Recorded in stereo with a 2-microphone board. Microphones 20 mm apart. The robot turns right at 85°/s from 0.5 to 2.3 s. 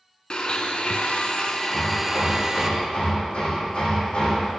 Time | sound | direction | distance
0.3 | a blender | 45° left | 0.7 m
1.7 | hammering | 75° left | 2.5 m